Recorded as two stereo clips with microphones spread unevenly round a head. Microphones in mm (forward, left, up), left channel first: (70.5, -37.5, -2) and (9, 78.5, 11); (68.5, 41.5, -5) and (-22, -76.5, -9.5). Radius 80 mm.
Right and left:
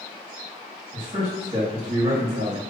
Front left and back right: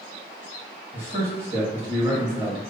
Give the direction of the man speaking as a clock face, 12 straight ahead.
6 o'clock.